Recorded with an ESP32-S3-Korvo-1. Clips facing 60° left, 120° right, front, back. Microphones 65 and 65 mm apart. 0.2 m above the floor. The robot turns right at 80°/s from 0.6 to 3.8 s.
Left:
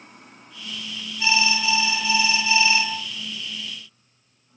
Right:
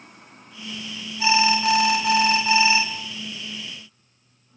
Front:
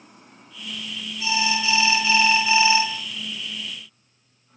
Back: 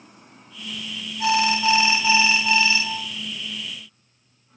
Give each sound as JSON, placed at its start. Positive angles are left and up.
{"t": 1.2, "sound": "an alarm", "azimuth_deg": 170, "distance_m": 3.5}